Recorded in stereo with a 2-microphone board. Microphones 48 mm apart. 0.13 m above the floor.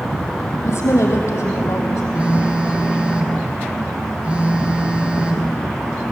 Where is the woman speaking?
75° left (ahead or behind), 4.5 m.